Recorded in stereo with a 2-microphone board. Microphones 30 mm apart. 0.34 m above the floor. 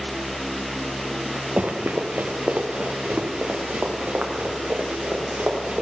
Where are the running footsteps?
60° right (ahead or behind), 1.7 m; by 5.8 s 55° right (ahead or behind), 4 m.